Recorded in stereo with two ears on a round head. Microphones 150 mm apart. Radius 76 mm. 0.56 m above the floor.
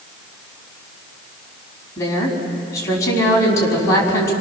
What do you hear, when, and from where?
2.0 s a woman speaking: 20° left (ahead or behind), 5 m